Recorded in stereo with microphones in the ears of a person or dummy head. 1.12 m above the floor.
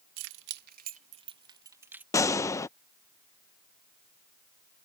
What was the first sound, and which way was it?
Keys jangling, 65° right (ahead or behind).